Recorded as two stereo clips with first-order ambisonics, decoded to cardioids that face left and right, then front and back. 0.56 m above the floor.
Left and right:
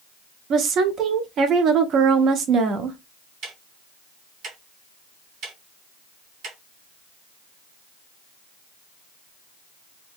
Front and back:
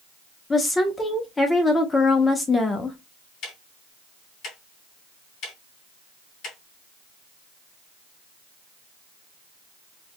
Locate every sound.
0.5 s a woman speaking: 70° right, 0.7 m
3.4 s ticking: 50° right, 3 m